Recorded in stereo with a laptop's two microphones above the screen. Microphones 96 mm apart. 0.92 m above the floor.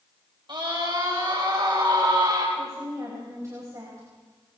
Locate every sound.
0.5 s a scream: 55° right (ahead or behind), 4 m
2.6 s a woman speaking: 35° right (ahead or behind), 4.5 m